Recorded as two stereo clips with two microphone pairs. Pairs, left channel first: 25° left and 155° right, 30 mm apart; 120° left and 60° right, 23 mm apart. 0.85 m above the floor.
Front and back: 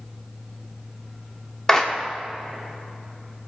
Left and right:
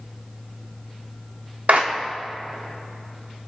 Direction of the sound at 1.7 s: 50° right.